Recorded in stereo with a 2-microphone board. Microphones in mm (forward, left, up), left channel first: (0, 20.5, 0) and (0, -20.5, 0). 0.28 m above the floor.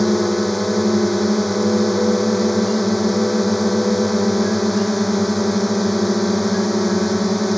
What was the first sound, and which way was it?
A drone, centre (ahead or behind).